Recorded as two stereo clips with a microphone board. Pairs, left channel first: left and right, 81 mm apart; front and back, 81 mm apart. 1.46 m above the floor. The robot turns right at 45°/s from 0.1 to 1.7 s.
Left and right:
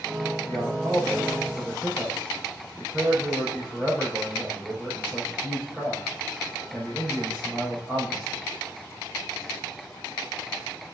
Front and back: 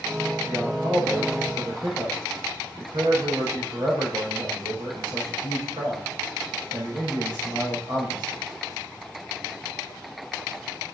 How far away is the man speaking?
About 4.5 m.